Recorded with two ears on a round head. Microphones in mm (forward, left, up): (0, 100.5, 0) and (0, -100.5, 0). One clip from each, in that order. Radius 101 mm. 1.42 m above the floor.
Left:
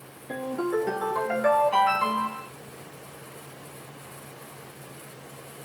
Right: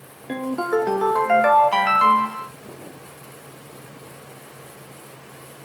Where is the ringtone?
30° right (ahead or behind), 0.6 m.